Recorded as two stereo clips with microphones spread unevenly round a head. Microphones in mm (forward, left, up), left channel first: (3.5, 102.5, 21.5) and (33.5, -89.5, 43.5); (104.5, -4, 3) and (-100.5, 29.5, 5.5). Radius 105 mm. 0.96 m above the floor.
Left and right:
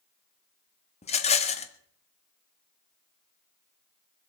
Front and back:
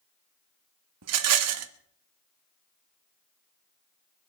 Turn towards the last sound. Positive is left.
turn(degrees=160)